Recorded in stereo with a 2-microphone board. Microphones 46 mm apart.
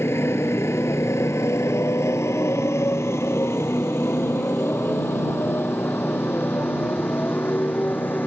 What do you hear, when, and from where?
0.0 s a motorcycle: 65° left (ahead or behind); by 8.3 s 45° left (ahead or behind)